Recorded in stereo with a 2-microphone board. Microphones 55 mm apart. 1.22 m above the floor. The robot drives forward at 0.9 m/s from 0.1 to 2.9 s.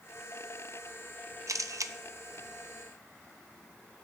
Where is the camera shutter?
70° right (ahead or behind), 0.5 m; by 1.9 s 60° right (ahead or behind), 0.5 m.